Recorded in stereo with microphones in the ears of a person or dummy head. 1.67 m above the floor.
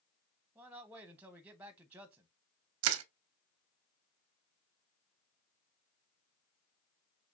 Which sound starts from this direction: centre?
A man speaking, at 0.6 s.